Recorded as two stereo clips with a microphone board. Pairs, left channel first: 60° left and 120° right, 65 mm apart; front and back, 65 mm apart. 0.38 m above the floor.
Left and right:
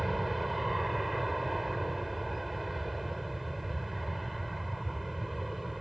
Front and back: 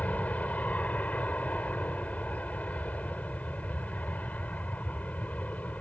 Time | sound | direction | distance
0.0 | an aircraft | 30° right | ?